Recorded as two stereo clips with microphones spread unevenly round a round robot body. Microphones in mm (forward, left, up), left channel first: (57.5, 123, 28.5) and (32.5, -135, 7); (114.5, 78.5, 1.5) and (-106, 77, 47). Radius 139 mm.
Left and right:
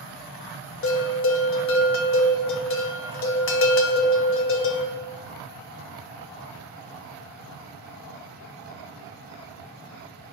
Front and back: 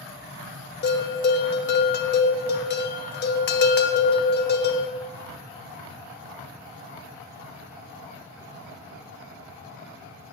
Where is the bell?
45° left, 0.8 m.